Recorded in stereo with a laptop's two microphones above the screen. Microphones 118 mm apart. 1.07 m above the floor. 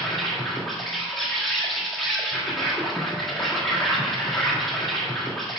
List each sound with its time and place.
0.0 s an insect: centre (ahead or behind), 1.5 m